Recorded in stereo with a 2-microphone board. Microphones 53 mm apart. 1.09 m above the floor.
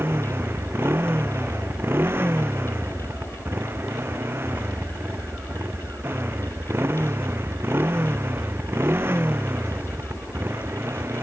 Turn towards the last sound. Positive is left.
turn(degrees=-45)  # may be behind; listen again after turning